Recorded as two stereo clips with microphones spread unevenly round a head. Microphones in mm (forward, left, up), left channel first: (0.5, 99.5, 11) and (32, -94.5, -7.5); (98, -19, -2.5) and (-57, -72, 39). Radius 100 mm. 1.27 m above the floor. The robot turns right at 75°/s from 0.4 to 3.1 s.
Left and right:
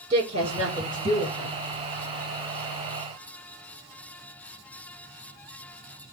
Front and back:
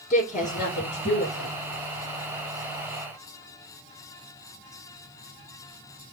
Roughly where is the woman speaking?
Ahead right.